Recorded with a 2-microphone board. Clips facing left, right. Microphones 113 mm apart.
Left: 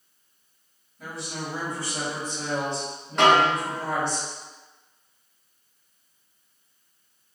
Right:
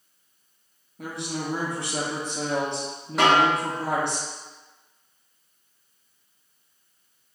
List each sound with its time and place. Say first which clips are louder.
1.0 s a woman speaking: right 3 dB; 65° right (ahead or behind), 1.2 m
3.2 s a snare drum: left 1 dB; 5° right (ahead or behind), 2.0 m